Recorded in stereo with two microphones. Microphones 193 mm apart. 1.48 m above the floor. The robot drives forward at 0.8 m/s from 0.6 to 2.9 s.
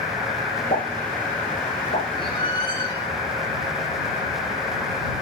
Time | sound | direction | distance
0.7 | a pop | 40° left (ahead or behind) | 6 m
2.2 | a squeak | 25° left (ahead or behind) | 3 m